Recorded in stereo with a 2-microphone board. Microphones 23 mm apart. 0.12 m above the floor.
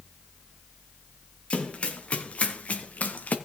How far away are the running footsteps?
About 3.5 m.